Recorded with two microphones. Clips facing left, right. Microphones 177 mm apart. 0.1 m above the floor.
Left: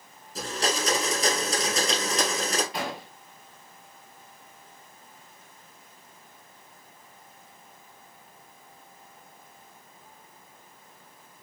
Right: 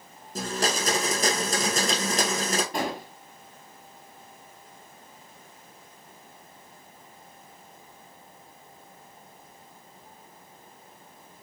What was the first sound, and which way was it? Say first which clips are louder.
A blender: right 1 dB; 45° right (ahead or behind).